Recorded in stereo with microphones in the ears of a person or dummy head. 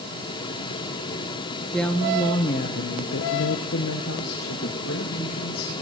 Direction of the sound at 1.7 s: 5° left (ahead or behind).